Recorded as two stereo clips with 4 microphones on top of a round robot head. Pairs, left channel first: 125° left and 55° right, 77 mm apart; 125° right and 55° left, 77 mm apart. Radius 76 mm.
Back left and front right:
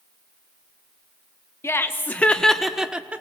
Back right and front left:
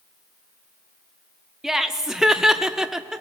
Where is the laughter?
140° left, 1.2 m; by 3.2 s 15° right, 1.1 m.